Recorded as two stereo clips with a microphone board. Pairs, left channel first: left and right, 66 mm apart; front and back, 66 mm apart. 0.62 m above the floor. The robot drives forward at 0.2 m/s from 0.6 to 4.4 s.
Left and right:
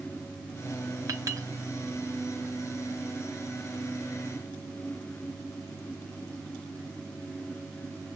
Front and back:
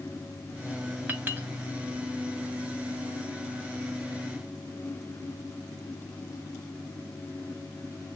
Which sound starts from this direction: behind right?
A clink, at 1.1 s.